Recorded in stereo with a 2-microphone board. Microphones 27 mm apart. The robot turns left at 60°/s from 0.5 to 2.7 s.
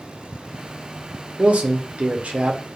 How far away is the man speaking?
About 0.6 m.